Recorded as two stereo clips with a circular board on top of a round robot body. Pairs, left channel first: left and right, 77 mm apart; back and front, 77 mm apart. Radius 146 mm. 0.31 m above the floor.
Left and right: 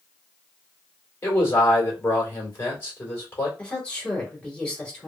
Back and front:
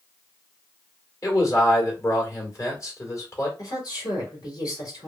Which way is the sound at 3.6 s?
160° left.